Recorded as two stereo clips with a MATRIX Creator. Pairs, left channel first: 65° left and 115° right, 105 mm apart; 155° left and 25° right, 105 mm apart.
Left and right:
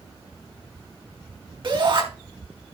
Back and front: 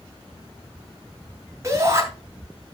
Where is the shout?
80° right, 3 m.